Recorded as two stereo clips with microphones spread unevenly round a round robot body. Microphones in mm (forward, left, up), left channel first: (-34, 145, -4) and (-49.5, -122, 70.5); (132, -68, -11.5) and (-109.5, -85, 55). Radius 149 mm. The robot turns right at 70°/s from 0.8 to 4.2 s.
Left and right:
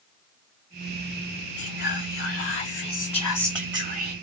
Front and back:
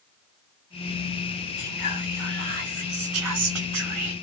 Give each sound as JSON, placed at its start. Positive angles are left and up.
{"t": 1.6, "sound": "whispering", "azimuth_deg": 65, "distance_m": 1.1}